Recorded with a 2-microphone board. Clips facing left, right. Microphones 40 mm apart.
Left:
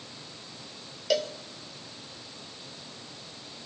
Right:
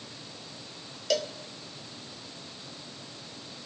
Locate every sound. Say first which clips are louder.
1.1 s a cowbell: left 2 dB; 5° left (ahead or behind), 1.5 m